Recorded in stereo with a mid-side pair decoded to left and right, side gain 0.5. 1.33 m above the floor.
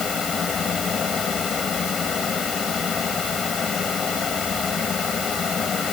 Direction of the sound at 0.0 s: 40° left.